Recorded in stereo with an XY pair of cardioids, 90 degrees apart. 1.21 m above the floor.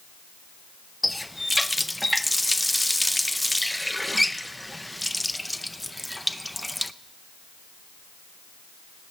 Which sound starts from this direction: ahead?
A running tap, at 1.0 s.